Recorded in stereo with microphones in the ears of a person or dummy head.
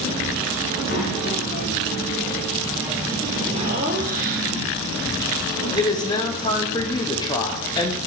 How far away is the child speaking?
About 1.3 m.